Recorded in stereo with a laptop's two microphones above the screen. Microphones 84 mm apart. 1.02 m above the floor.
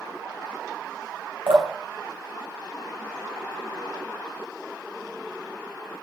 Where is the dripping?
85° right, 1.5 m.